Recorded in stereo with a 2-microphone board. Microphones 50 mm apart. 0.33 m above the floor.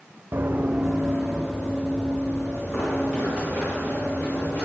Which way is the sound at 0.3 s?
50° right (ahead or behind).